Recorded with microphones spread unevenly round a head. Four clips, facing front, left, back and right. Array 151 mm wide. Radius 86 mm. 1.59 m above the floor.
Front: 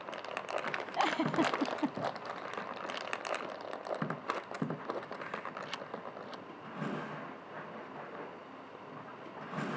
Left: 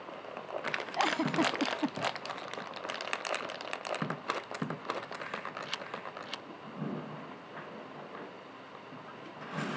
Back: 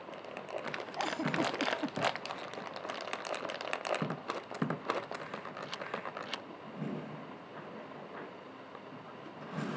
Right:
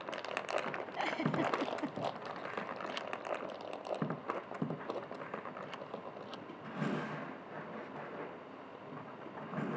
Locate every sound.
1.0 s a giggle: 45° left